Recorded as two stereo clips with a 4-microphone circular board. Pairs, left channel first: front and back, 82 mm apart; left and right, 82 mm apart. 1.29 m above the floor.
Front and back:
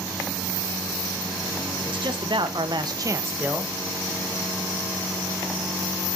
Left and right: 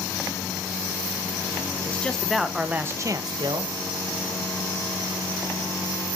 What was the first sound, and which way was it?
A man speaking, 165° left.